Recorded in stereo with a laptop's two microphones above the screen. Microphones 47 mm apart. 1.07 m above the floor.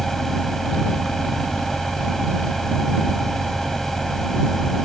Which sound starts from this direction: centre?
A fan, at 0.0 s.